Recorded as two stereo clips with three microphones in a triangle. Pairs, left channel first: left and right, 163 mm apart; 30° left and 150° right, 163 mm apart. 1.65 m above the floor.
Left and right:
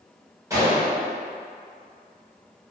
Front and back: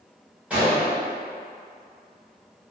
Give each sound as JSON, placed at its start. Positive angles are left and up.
{"t": 0.5, "sound": "a gunshot", "azimuth_deg": -85, "distance_m": 1.2}